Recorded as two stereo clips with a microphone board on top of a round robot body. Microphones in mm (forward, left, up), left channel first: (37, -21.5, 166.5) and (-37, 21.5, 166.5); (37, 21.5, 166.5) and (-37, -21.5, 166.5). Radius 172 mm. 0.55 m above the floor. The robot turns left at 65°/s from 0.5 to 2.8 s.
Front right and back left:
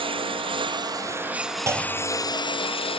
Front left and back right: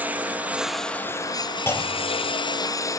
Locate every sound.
0.0 s a lawn mower: 135° left; by 3.0 s 25° right
1.7 s a clunk: 95° left; by 2.3 s 50° left